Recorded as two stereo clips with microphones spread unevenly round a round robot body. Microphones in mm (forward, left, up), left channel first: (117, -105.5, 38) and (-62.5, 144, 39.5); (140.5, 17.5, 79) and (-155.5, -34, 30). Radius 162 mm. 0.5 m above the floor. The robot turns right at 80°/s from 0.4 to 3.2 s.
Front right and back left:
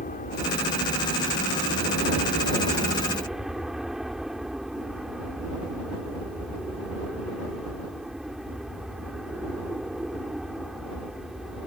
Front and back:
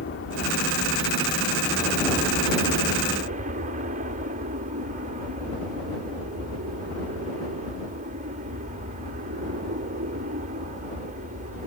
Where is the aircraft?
10° right; by 11.7 s 145° right.